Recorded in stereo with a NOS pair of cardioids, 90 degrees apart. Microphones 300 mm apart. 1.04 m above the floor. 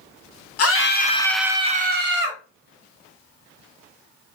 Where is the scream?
55° left, 0.9 m; by 2.4 s 45° right, 1.3 m.